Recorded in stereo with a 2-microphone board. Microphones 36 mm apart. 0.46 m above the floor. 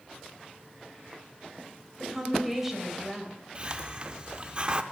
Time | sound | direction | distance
2.0 | a woman speaking | 10° right (ahead or behind) | 2.5 m
3.5 | a hiss | 30° right (ahead or behind) | 0.5 m